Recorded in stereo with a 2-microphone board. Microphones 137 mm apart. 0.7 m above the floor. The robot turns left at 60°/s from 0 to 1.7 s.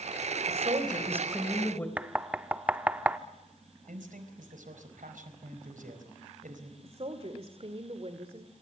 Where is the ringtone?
No ringtone in this recording.